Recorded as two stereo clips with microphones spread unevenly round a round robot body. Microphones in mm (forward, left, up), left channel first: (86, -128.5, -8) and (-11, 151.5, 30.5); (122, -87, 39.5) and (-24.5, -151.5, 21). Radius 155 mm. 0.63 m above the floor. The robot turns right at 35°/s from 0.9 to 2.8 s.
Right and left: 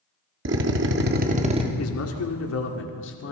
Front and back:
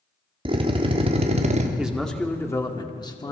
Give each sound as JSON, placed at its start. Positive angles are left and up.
{"t": 0.5, "sound": "a drill", "azimuth_deg": 160, "distance_m": 1.4}
{"t": 1.8, "sound": "a man speaking", "azimuth_deg": -75, "distance_m": 1.9}